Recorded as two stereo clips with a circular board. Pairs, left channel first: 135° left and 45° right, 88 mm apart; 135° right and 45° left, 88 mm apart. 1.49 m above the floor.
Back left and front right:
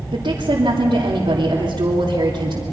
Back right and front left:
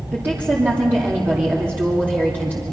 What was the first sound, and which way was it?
A woman speaking, 25° right.